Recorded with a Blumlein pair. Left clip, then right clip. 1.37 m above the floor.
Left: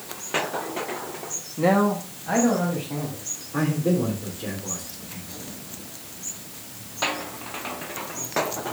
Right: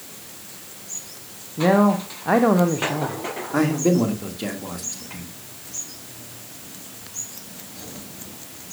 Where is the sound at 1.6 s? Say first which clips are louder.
Right 3 dB; 5° right, 0.8 m; by 3.2 s 65° right, 1.3 m.